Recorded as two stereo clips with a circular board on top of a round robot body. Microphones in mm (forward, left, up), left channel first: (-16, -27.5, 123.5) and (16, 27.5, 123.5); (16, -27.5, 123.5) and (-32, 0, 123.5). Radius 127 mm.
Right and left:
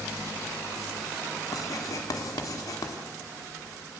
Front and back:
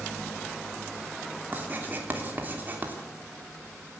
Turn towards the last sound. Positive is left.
turn(degrees=-150)